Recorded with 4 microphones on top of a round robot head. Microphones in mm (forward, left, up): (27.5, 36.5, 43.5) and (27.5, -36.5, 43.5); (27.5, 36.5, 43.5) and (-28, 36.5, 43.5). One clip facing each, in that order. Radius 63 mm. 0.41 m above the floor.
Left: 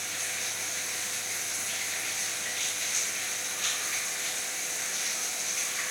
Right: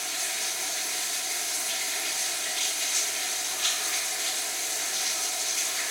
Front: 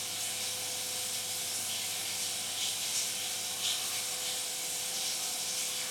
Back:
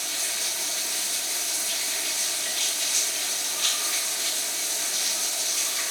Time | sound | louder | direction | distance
0.0 | running water | right 2 dB, back 8 dB | straight behind | 1.2 m